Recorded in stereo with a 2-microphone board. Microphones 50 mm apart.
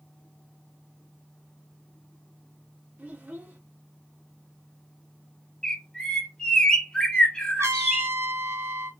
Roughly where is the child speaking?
Right.